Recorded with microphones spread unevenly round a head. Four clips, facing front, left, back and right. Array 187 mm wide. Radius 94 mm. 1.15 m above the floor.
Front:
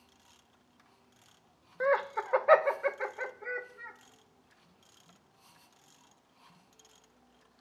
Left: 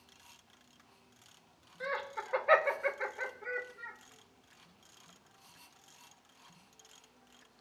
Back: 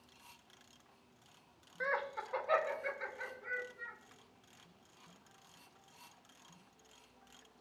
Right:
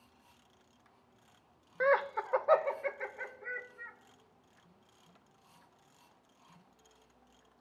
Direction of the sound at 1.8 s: 40° right.